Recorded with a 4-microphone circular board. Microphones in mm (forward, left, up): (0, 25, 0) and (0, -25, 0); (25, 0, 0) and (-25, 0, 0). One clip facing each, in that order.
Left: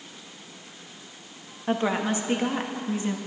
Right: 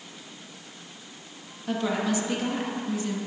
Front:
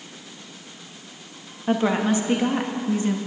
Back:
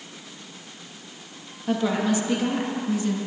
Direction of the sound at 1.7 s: 45° left.